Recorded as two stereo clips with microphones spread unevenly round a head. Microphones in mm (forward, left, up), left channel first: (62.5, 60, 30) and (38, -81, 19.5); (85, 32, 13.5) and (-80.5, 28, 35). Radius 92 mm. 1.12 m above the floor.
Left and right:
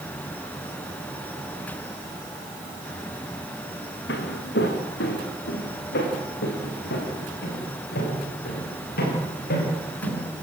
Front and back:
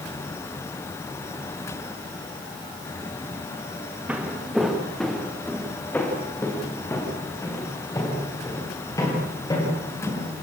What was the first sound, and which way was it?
Footsteps, 100° left.